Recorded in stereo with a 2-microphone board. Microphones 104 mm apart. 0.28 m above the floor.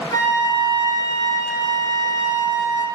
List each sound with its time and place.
0.1 s a flute: 35° left (ahead or behind), 1.1 m